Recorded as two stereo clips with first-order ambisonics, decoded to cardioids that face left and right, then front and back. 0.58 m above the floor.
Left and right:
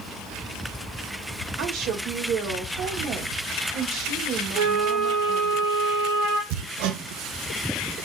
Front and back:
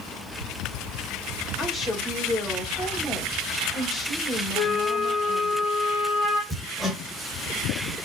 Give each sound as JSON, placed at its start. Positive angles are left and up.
{"t": 1.6, "sound": "a woman speaking", "azimuth_deg": -85, "distance_m": 1.5}
{"t": 4.5, "sound": "a flute", "azimuth_deg": -100, "distance_m": 3.0}
{"t": 6.5, "sound": "hammering", "azimuth_deg": -90, "distance_m": 0.9}